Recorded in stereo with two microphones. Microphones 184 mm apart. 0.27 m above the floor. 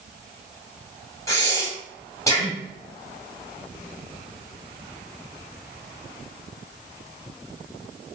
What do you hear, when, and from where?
1.3 s breathing: 15° left (ahead or behind), 1.2 m